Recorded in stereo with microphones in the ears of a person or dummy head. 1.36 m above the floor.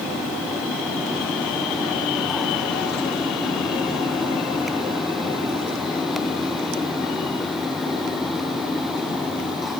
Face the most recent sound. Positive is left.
No sound to turn to.